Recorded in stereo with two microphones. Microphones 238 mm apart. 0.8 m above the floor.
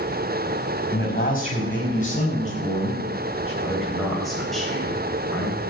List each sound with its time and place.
0.9 s a man speaking: 35° left (ahead or behind), 4.5 m; by 3.5 s 25° left (ahead or behind), 6.5 m
3.6 s a man speaking: centre (ahead or behind), 3.5 m